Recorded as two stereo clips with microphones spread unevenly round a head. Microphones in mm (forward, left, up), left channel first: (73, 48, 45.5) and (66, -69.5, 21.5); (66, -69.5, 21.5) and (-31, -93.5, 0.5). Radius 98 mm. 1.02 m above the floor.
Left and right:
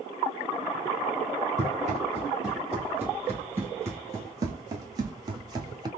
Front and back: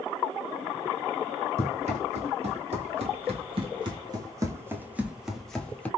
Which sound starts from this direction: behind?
Running footsteps, at 1.6 s.